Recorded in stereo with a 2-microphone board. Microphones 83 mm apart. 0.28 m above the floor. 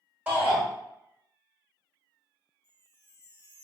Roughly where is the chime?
Right.